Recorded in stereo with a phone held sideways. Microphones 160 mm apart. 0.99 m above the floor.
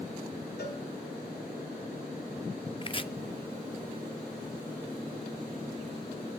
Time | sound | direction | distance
0.6 | a cowbell | 80° left | 4.5 m
2.8 | chopping | 35° left (ahead or behind) | 0.7 m